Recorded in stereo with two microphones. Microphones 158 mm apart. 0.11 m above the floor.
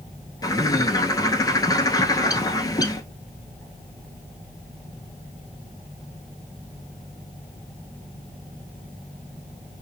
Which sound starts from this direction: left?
A bird, at 0.4 s.